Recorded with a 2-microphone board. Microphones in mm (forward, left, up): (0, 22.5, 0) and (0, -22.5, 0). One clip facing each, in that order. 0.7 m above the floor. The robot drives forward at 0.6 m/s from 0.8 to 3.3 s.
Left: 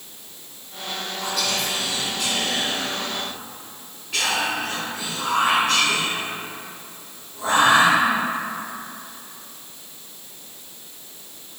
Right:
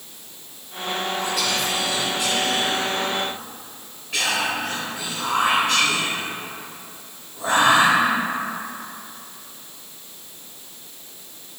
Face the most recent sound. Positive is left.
turn(degrees=0)  # may be behind; listen again after turning